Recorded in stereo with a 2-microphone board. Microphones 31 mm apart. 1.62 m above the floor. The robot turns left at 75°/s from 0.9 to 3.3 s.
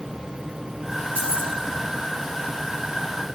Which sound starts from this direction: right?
Keys jangling, at 1.1 s.